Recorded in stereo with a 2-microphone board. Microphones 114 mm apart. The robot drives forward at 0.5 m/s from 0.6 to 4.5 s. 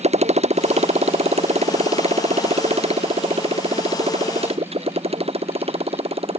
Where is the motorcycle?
65° right (ahead or behind); by 6.4 s 55° right (ahead or behind).